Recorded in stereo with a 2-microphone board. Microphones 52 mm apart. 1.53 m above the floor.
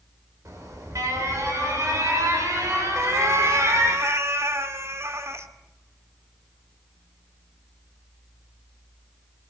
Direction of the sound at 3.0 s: 60° right (ahead or behind).